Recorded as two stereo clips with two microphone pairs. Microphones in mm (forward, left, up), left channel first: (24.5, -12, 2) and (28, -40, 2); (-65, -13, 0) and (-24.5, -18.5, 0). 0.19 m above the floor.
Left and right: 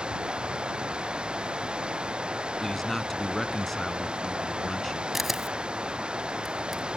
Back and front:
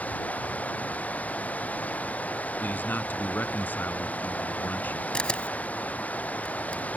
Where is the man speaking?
Straight behind.